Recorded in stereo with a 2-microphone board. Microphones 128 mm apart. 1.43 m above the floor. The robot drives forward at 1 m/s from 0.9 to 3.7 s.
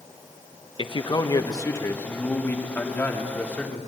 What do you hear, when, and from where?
0.8 s a man speaking: 40° left (ahead or behind), 1.2 m; by 3.8 s 10° left (ahead or behind), 4 m